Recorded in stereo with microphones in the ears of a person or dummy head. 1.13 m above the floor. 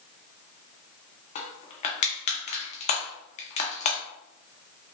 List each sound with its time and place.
1.4 s crushing: 40° left (ahead or behind), 0.5 m